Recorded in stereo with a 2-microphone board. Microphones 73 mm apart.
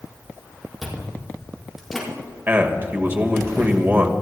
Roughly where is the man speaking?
Right.